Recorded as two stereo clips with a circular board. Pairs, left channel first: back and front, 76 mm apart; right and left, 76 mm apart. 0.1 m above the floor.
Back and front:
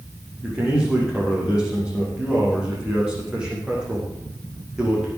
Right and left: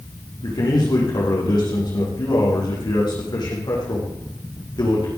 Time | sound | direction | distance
0.4 | a man speaking | 75° right | 6 m